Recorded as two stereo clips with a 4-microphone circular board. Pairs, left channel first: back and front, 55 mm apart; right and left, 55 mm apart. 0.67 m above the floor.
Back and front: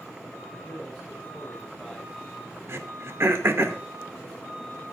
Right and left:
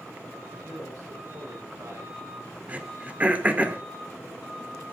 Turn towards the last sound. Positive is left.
turn(degrees=30)